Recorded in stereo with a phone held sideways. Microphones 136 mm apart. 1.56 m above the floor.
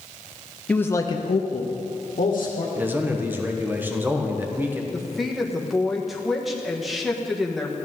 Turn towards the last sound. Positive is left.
turn(degrees=0)  # may be behind; listen again after turning